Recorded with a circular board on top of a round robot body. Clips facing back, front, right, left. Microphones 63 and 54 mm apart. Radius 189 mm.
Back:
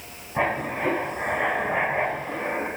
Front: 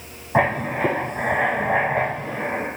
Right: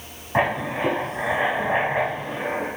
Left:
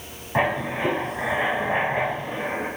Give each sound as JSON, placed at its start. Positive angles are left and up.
{"t": 0.3, "sound": "writing", "azimuth_deg": -10, "distance_m": 1.3}